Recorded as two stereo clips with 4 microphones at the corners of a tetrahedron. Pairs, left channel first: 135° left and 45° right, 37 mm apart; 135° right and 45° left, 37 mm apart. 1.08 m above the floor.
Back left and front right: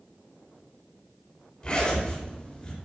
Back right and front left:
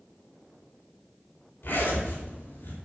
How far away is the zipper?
About 5 m.